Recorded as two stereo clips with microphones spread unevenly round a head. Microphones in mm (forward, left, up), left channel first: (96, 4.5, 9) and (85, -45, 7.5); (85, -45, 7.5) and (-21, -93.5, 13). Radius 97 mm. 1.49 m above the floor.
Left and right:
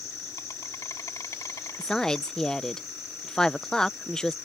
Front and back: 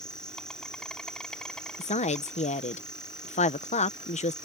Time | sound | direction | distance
0.0 | an insect | 115° left | ?
1.8 | a woman speaking | straight ahead | ?